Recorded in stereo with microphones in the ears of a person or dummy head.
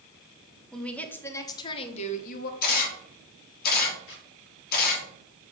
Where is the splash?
I don't hear a splash.